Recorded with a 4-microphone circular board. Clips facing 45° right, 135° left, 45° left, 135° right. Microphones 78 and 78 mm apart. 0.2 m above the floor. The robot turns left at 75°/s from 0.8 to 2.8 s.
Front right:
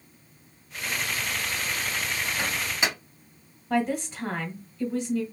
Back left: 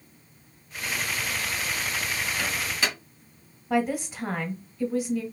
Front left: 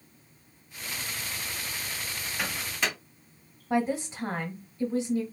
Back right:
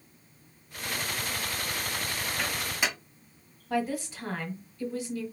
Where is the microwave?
35° right, 1.1 m; by 3.0 s 65° right, 1.1 m.